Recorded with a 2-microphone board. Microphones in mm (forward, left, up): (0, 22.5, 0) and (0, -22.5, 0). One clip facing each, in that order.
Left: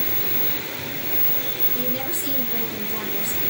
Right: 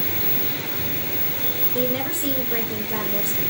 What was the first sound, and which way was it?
A woman speaking, 30° right (ahead or behind).